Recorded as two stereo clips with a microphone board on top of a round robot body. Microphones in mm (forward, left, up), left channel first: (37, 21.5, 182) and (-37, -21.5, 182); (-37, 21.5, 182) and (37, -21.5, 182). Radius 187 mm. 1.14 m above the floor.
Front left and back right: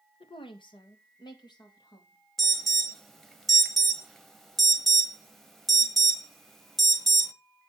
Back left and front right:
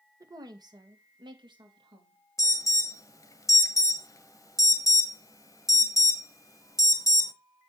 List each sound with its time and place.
0.2 s a woman speaking: 20° left, 1.7 m; by 2.2 s 10° right, 3 m
2.4 s an alarm: 115° left, 1.4 m